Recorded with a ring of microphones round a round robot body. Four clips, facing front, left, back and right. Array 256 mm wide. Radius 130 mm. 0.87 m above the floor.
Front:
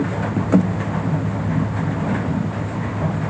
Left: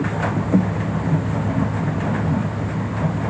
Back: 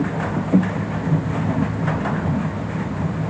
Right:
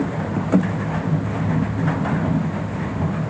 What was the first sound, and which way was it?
Only background noise.